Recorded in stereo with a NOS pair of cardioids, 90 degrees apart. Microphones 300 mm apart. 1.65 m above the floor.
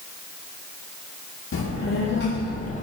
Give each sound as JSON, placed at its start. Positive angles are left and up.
{"t": 1.5, "sound": "a child speaking", "azimuth_deg": 45, "distance_m": 1.6}